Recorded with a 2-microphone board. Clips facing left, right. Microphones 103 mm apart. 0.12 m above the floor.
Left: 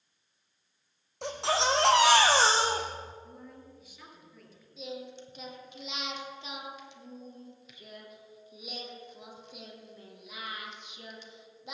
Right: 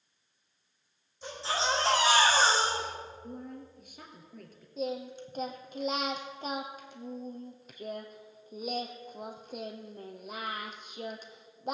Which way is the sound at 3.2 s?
50° right (ahead or behind).